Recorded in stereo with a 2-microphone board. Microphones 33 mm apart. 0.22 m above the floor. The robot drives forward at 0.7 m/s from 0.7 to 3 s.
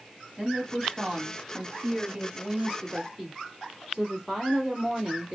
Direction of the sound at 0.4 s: 25° right (ahead or behind).